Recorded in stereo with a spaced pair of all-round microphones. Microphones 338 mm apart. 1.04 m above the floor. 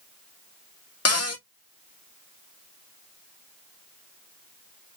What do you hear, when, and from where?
1.1 s a cupboard door: 50° left (ahead or behind), 0.8 m